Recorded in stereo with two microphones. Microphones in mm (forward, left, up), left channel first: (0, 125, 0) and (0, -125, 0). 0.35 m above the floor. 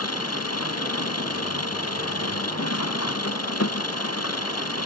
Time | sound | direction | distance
0.0 | an engine running | 80° left | ?